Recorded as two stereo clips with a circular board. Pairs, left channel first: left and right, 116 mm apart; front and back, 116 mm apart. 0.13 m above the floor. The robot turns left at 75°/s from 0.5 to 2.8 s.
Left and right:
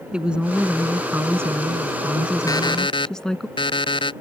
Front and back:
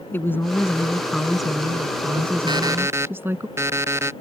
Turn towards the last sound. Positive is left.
turn(degrees=120)